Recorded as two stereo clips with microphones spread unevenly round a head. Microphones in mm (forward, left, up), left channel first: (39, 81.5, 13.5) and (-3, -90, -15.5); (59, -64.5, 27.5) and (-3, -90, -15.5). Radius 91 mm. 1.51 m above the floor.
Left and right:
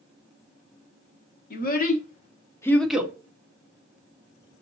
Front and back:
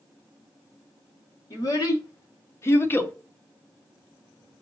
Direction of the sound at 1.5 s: 50° left.